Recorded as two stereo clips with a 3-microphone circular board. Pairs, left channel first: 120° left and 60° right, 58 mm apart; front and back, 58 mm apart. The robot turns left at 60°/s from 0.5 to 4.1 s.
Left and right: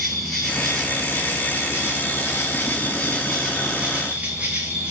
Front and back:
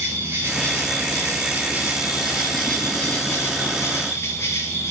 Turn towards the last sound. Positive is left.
turn(degrees=-5)